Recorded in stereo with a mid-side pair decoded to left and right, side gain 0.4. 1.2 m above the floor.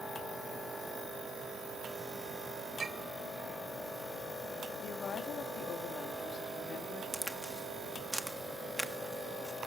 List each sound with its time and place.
2.8 s a clink: 45° right, 3 m
4.8 s a woman speaking: 65° left, 3 m
7.1 s a crack: 5° right, 1.5 m